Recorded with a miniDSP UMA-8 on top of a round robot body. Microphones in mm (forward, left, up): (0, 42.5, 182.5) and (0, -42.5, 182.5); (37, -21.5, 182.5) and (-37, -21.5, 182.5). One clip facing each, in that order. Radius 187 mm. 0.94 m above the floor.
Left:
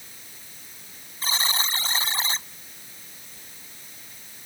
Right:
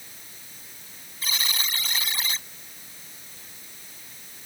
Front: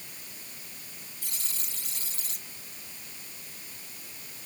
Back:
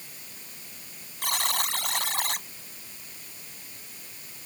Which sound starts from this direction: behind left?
A buzzer, at 1.2 s.